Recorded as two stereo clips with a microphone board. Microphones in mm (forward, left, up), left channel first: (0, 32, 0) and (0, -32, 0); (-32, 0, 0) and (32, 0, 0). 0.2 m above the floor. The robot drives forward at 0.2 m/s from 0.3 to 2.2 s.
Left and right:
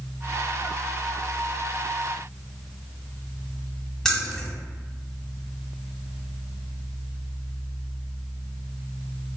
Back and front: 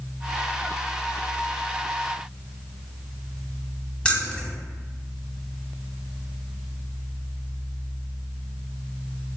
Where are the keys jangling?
155° left, 0.6 m.